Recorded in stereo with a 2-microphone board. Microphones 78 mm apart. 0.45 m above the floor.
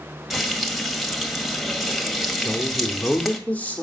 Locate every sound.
0.3 s frying: centre (ahead or behind), 1.8 m
2.4 s a woman speaking: 20° left (ahead or behind), 1.5 m